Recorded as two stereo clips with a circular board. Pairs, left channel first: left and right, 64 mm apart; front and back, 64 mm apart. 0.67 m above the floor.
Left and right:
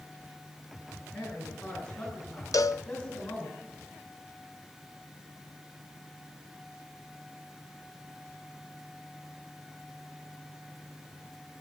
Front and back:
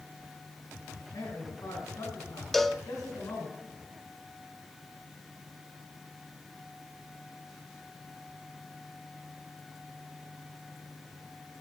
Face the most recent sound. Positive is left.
turn(degrees=85)